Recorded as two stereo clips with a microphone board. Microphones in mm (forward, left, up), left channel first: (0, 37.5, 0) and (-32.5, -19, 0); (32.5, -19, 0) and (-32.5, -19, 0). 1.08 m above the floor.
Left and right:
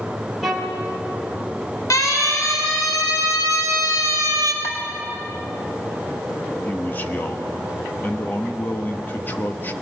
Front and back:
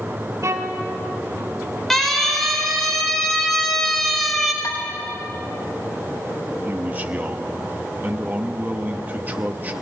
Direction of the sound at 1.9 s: 80° left.